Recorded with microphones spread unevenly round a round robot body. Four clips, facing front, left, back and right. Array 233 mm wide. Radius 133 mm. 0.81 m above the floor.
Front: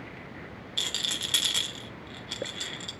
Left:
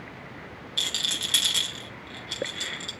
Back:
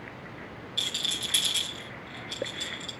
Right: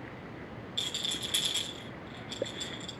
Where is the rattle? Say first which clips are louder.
Left 7 dB, front 1 dB; 45° left, 1.8 m.